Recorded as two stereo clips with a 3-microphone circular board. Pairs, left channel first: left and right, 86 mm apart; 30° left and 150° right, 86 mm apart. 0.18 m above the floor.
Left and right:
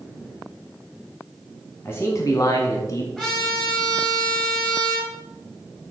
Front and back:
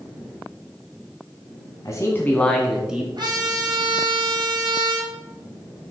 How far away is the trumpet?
About 3.5 m.